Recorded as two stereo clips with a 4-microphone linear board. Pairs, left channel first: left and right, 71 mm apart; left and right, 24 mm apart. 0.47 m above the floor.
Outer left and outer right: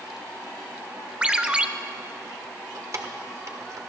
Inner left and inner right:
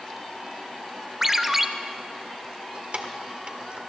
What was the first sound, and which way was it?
A ringtone, 15° right (ahead or behind).